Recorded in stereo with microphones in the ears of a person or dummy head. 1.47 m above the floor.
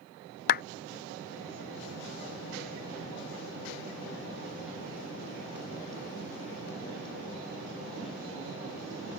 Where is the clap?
50° left (ahead or behind).